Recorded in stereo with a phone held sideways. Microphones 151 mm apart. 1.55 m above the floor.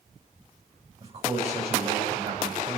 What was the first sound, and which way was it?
A man speaking, 40° right (ahead or behind).